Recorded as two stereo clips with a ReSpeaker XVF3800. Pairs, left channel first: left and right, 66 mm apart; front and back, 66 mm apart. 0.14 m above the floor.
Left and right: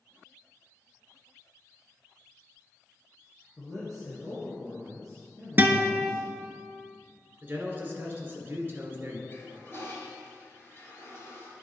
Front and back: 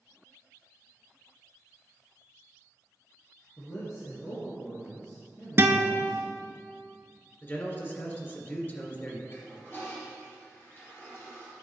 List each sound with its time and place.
3.6 s a man speaking: 15° left, 3 m
5.6 s a guitar: 140° right, 0.6 m
7.4 s a man speaking: 40° right, 1.9 m
9.3 s a toilet flushing: 40° left, 3 m